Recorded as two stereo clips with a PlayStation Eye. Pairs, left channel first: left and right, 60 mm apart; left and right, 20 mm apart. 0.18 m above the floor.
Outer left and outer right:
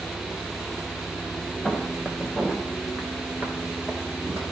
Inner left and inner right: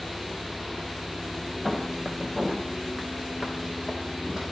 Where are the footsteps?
5° left (ahead or behind), 3 m; by 4.5 s 35° right (ahead or behind), 3.5 m.